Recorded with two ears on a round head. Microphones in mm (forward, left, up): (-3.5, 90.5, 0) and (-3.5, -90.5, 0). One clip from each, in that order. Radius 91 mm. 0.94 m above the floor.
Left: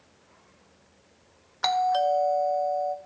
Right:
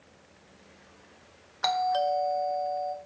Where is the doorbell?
10° left (ahead or behind), 0.7 m.